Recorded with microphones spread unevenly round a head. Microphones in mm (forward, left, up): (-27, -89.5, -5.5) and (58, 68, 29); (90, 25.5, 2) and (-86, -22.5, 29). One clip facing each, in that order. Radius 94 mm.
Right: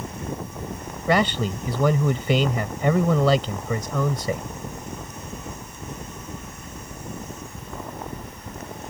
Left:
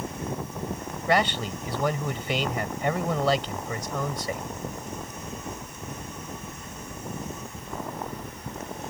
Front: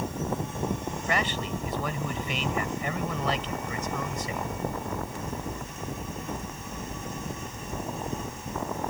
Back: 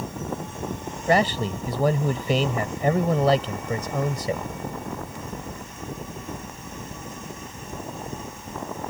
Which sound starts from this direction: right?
A man speaking, at 1.1 s.